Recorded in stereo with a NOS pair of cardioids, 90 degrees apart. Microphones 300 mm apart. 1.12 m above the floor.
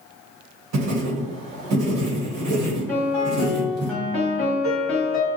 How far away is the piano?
About 1.4 m.